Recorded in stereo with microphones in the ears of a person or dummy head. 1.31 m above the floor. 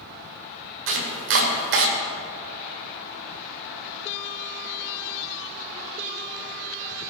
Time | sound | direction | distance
0.9 | chopping | 60° right (ahead or behind) | 1.6 m